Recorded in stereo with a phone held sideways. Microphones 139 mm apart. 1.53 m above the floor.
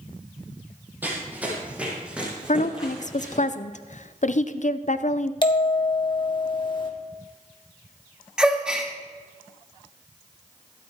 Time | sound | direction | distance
1.0 | running footsteps | 15° right (ahead or behind) | 3 m
2.5 | a woman speaking | 60° left (ahead or behind) | 0.6 m
5.4 | a bell | 35° left (ahead or behind) | 1.5 m
8.4 | a gasp | 5° right (ahead or behind) | 1.4 m